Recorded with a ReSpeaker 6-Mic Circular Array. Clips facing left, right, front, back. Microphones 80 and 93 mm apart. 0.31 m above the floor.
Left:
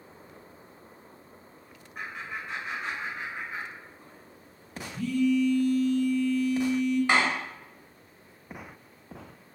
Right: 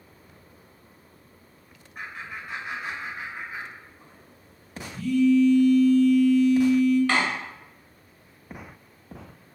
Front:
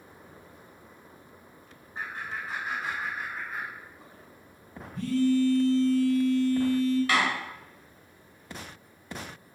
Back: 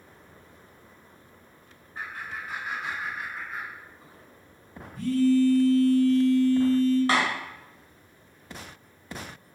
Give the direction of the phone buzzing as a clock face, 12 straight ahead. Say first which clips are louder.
Right 5 dB, back 3 dB; 11 o'clock.